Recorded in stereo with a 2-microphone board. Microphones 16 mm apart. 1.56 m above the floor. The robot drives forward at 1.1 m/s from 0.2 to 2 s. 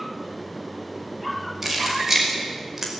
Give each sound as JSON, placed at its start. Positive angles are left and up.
{"t": 1.6, "sound": "keys jangling", "side_deg": -25, "distance_m": 5.5}